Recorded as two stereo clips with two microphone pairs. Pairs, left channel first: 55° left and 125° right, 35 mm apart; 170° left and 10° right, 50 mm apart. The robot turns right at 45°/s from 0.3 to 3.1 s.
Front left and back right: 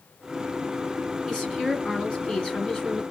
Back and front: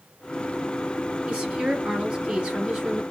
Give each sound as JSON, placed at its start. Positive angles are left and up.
{"t": 1.3, "sound": "a woman speaking", "azimuth_deg": -10, "distance_m": 1.8}